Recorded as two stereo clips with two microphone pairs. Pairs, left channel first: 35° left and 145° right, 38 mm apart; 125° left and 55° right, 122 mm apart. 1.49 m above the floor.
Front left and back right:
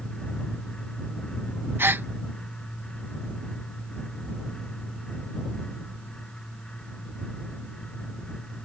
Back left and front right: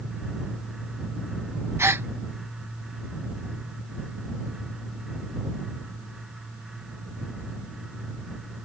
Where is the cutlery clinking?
I don't hear cutlery clinking.